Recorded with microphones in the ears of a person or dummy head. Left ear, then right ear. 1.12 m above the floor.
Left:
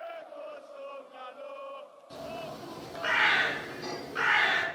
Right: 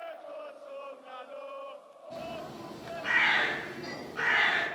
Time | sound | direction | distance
2.1 | a bird | 60° left (ahead or behind) | 2 m